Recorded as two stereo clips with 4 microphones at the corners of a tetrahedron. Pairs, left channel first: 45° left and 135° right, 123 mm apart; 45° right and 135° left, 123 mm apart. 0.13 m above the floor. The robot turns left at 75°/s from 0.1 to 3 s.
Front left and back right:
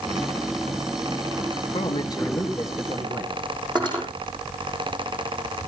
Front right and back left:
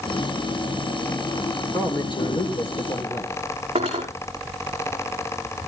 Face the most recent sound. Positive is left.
turn(degrees=175)